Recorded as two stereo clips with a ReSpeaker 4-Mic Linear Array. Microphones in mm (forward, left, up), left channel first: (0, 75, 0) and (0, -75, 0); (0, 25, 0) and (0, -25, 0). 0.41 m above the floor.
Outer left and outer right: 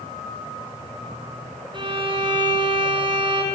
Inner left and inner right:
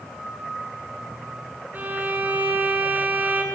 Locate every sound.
1.7 s a violin: 35° right (ahead or behind), 4.5 m